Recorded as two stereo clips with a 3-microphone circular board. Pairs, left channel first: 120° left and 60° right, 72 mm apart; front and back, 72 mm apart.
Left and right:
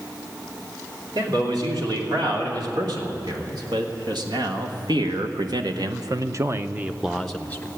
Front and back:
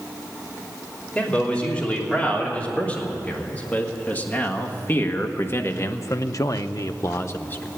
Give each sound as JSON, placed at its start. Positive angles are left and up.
{"t": 1.1, "sound": "a man speaking", "azimuth_deg": -75, "distance_m": 3.5}